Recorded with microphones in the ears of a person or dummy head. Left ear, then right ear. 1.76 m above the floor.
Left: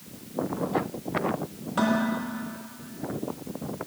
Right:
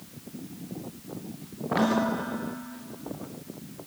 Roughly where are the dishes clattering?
Centre.